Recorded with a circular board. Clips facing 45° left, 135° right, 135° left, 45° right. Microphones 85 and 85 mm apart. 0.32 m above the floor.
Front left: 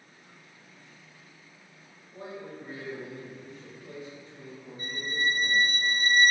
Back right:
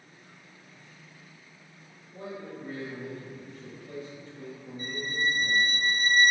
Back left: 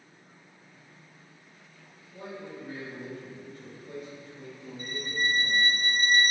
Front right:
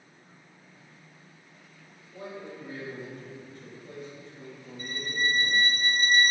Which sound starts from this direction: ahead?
A man speaking, at 2.1 s.